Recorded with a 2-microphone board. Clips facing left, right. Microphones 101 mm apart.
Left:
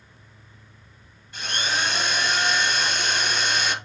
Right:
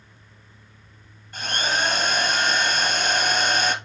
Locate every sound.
1.3 s a drill: 50° right (ahead or behind), 1.6 m